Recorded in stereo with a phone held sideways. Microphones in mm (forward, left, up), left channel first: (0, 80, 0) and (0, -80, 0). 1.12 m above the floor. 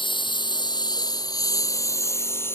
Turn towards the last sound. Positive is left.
turn(degrees=15)  # may be behind; listen again after turning